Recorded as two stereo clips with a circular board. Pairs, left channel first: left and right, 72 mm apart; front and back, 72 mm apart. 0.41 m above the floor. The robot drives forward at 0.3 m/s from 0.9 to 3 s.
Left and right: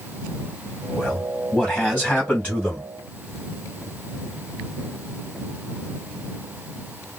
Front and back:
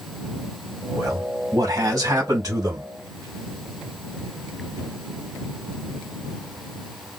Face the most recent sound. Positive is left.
turn(degrees=160)